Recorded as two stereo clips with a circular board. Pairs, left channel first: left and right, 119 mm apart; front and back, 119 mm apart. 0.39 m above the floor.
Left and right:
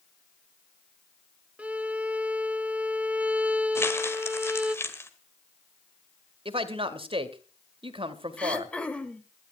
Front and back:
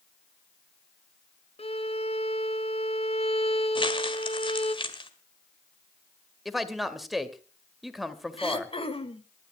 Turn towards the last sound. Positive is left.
turn(degrees=15)